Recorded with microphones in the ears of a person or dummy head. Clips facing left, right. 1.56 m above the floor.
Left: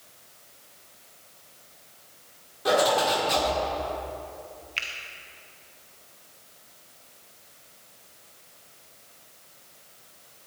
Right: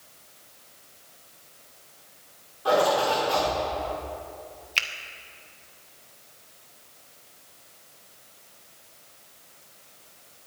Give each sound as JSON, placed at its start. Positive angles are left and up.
{"t": 2.6, "sound": "a zipper", "side_deg": 35, "distance_m": 5.0}
{"t": 4.8, "sound": "a finger snap", "side_deg": -60, "distance_m": 1.1}